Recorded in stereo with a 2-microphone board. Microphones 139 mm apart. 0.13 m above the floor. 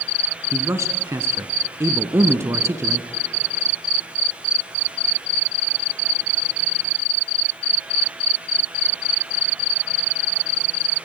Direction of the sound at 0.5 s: 20° right (ahead or behind).